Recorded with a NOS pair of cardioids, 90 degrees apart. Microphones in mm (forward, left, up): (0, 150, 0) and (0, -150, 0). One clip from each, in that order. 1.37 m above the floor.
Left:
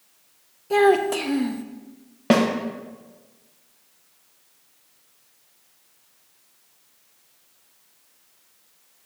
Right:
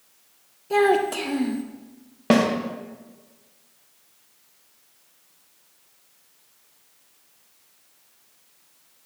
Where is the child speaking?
10° left, 0.8 m.